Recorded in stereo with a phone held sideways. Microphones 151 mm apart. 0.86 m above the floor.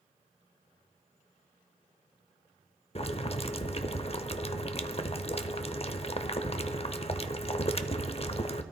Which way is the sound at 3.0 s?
40° left (ahead or behind).